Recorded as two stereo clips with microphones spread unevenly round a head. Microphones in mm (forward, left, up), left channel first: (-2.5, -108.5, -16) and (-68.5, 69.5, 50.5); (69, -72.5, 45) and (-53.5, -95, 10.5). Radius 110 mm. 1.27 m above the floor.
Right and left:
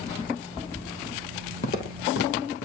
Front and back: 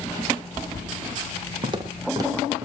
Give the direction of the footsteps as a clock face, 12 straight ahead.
4 o'clock.